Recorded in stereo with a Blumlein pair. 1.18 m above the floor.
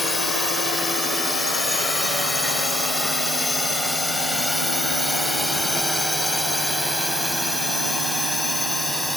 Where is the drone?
10° left; by 9.2 s straight ahead.